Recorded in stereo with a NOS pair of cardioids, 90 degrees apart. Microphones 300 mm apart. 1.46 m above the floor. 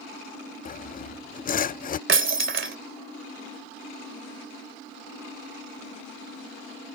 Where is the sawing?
30° left.